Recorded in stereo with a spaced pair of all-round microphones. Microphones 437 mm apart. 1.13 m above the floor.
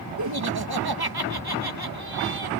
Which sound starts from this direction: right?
Laughter, at 0.2 s.